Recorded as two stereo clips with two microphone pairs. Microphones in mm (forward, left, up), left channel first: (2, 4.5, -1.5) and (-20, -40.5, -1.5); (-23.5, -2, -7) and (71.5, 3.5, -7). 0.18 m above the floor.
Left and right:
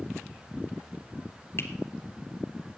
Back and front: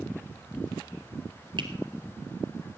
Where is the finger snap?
25° left, 2.5 m.